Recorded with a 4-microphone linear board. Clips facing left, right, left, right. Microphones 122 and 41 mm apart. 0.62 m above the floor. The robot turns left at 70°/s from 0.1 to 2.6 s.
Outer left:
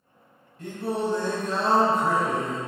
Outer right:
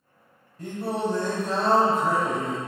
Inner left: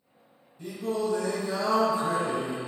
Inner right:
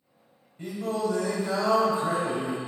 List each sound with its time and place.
0.6 s singing: 40° right, 0.9 m; by 2.6 s straight behind, 0.9 m